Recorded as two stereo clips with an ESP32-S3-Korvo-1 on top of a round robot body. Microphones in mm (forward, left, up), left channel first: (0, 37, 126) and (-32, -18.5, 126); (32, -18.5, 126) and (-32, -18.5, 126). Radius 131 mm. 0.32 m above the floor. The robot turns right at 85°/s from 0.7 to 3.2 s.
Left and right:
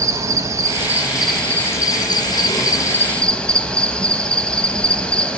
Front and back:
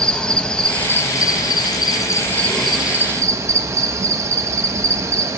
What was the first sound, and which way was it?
An insect, 75° right.